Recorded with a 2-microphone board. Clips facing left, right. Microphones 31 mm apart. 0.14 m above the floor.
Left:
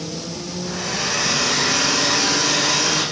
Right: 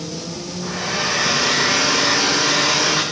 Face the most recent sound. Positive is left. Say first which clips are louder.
# right 3 dB
turn(degrees=-45)  # may be behind; listen again after turning